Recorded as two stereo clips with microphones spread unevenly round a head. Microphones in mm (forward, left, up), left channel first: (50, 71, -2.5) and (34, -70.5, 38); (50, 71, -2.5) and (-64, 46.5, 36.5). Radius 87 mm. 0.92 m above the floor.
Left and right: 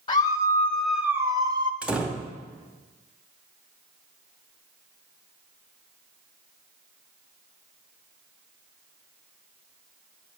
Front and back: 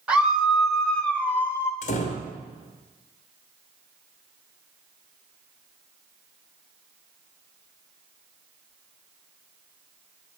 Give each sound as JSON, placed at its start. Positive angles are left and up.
{"t": 0.1, "sound": "a scream", "azimuth_deg": 95, "distance_m": 0.6}
{"t": 1.8, "sound": "a door slam", "azimuth_deg": -10, "distance_m": 1.1}